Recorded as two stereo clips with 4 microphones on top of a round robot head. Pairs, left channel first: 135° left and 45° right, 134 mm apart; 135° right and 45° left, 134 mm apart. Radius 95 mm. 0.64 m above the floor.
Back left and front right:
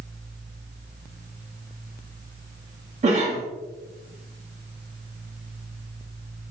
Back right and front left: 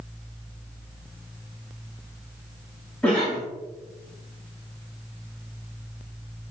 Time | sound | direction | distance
3.0 | a cough | 55° right | 0.9 m